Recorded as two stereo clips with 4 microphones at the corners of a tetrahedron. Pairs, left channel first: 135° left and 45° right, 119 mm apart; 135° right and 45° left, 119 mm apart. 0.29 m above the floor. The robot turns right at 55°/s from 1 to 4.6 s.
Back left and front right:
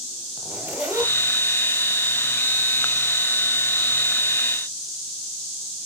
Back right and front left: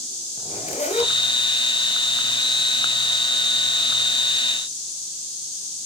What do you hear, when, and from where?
0.4 s a zipper: 125° right, 1.6 m; by 1.1 s 115° right, 1.6 m